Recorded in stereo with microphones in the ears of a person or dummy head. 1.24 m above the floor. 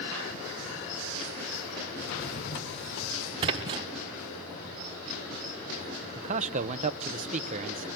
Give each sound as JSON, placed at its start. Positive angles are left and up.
{"t": 2.0, "sound": "a drawer", "side_deg": 65, "distance_m": 2.5}
{"t": 3.4, "sound": "a splash", "side_deg": -25, "distance_m": 1.0}
{"t": 6.2, "sound": "a man speaking", "side_deg": -35, "distance_m": 0.8}